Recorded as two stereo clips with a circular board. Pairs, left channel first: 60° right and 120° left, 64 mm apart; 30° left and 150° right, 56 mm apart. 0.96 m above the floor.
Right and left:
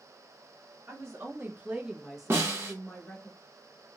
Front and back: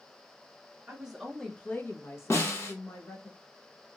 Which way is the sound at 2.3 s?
70° left.